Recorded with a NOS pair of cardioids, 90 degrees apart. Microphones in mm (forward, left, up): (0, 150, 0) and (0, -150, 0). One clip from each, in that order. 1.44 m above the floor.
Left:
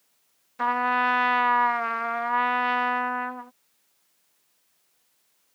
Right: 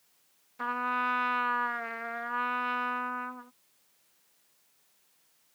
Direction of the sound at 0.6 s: 45° left.